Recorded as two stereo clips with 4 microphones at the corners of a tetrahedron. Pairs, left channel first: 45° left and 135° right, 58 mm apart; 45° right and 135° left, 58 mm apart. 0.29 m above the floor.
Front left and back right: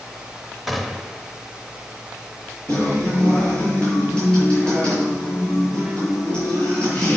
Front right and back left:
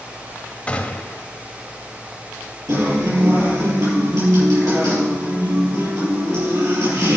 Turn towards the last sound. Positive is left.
turn(degrees=115)